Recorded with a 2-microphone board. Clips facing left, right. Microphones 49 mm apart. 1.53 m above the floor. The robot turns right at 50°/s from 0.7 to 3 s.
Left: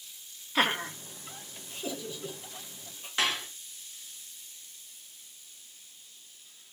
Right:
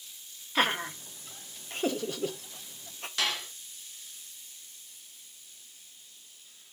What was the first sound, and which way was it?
Laughter, centre (ahead or behind).